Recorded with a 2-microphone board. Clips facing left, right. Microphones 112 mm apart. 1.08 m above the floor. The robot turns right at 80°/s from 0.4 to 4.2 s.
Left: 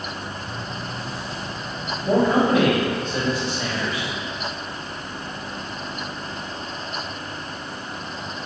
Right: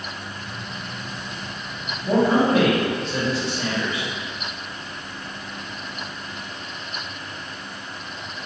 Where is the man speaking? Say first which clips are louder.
Even; 175° left, 1.6 m; by 4.1 s 20° right, 1.6 m.